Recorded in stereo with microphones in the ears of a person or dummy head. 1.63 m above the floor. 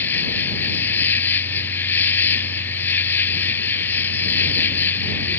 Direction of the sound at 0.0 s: 10° left (ahead or behind).